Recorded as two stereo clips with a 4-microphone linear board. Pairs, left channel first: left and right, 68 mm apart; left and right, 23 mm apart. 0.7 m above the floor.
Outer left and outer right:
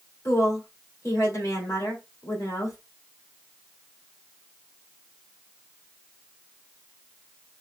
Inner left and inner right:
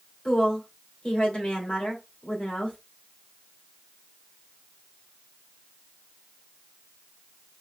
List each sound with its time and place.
0.2 s a woman speaking: 50° left (ahead or behind), 2.5 m